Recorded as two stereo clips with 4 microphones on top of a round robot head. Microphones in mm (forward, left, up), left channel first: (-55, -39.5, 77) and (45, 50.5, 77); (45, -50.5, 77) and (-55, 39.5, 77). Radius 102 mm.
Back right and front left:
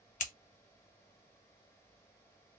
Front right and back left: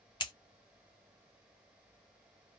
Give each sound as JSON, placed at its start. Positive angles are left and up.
{"t": 0.2, "sound": "scissors", "azimuth_deg": -100, "distance_m": 0.7}